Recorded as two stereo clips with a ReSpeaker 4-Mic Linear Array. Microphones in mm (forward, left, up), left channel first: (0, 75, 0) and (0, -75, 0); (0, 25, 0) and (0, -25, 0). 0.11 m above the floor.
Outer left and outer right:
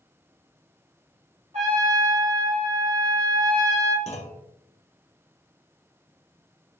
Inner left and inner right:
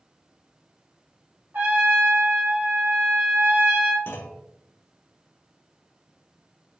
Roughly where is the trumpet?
Right.